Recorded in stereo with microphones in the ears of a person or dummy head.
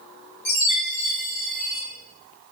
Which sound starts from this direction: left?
A chime, at 0.5 s.